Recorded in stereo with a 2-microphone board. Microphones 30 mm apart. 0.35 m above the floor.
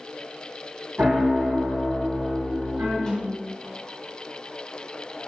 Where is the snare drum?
25° left (ahead or behind), 1.4 m.